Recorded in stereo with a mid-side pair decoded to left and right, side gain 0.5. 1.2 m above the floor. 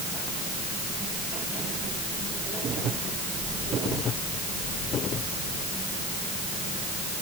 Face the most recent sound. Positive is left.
No sound to turn to.